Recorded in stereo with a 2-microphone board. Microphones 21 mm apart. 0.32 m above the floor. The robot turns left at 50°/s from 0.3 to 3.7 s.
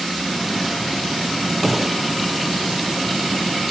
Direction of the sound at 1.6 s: Centre (ahead or behind).